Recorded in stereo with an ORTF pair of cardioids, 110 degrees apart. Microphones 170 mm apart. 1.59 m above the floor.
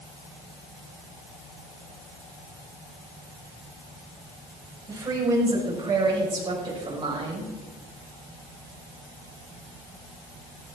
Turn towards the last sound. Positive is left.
turn(degrees=-30)